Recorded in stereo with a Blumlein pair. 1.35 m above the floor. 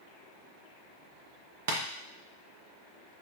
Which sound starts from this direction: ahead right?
Tapping, at 1.7 s.